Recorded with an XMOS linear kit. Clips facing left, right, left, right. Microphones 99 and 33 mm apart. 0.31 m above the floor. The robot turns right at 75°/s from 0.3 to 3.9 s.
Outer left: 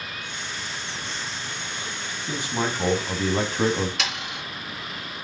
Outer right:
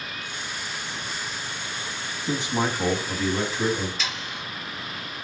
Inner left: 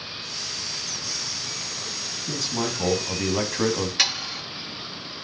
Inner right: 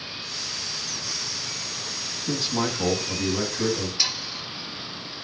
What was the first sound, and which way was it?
A man speaking, 35° right.